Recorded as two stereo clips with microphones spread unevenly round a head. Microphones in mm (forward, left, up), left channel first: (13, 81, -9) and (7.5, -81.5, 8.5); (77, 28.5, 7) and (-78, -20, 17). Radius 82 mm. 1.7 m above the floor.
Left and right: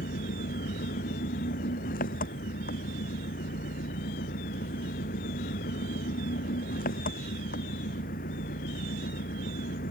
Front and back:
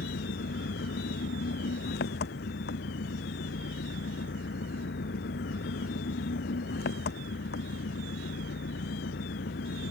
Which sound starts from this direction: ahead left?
An engine running, at 0.0 s.